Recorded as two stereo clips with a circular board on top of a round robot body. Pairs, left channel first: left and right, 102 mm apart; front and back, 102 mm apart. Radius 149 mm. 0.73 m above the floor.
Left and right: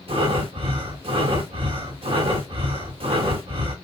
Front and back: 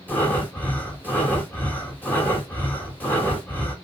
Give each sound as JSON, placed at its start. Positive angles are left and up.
{"t": 0.1, "sound": "breathing", "azimuth_deg": -70, "distance_m": 3.0}